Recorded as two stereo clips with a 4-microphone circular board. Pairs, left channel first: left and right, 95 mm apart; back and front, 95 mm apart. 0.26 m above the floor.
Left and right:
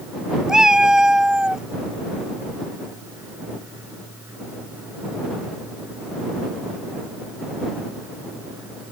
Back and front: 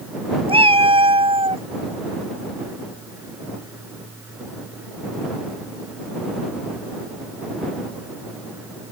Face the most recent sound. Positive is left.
turn(degrees=-5)